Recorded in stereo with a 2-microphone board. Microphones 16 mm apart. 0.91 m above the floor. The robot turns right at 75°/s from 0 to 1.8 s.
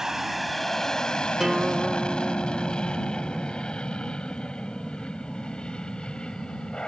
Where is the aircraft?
35° right (ahead or behind); by 6.9 s 75° left (ahead or behind).